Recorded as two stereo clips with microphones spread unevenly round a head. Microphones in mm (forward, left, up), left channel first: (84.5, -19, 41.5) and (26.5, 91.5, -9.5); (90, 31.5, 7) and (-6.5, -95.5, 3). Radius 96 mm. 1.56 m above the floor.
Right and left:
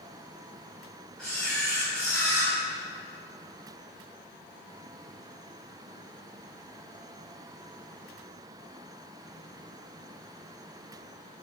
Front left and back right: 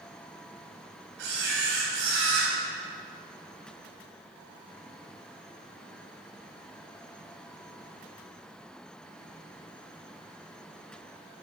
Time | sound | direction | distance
1.2 | a camera shutter | 135° right | 3 m